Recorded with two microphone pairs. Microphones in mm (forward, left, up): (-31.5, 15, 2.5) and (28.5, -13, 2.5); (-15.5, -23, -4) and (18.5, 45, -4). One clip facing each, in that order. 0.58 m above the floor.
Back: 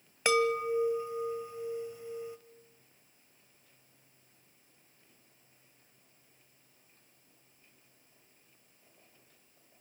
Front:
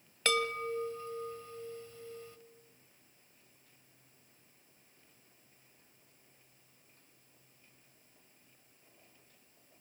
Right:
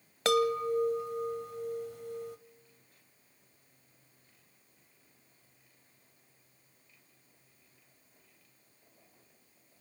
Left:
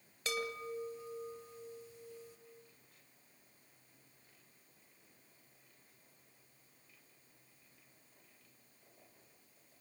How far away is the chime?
About 1.5 m.